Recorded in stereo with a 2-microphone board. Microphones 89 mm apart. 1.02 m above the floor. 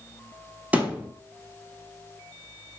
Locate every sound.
0.7 s a thud: 15° right (ahead or behind), 0.7 m